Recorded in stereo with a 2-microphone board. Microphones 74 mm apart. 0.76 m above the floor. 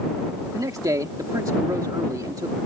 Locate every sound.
0.5 s a man speaking: 55° right (ahead or behind)